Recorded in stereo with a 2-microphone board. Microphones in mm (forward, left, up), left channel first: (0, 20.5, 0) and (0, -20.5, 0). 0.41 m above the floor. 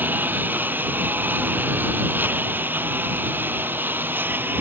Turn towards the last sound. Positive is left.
turn(degrees=-55)  # may be behind; listen again after turning